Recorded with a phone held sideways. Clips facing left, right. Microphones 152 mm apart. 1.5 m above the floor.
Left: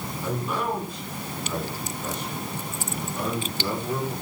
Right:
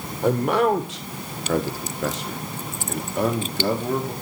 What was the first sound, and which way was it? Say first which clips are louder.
A man speaking: right 10 dB; 60° right (ahead or behind).